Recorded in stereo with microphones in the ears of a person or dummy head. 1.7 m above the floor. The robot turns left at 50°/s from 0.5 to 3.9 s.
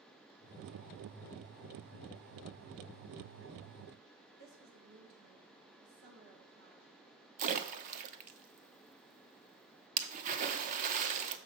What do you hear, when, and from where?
4.4 s a woman speaking: 60° right (ahead or behind), 2.5 m
7.4 s a splash: 45° right (ahead or behind), 0.7 m